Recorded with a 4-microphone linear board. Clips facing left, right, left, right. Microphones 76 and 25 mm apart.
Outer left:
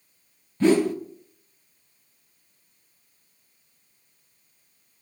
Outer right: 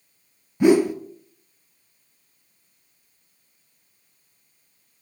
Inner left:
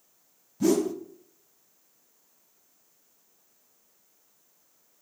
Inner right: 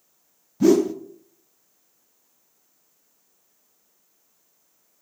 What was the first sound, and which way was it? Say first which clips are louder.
A whoosh: outer right 3 dB, inner right 7 dB; 15° right (ahead or behind).